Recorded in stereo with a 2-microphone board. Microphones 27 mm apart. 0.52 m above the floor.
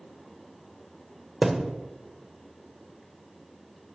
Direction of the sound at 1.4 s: 5° right (ahead or behind).